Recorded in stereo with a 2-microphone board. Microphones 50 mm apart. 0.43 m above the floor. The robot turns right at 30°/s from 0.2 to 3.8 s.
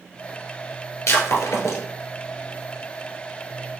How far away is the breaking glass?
About 1.3 m.